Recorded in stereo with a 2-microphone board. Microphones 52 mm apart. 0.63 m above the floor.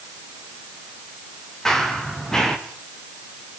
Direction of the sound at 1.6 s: 10° left (ahead or behind).